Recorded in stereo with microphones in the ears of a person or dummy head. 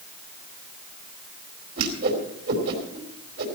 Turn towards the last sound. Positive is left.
turn(degrees=-60)  # may be behind; listen again after turning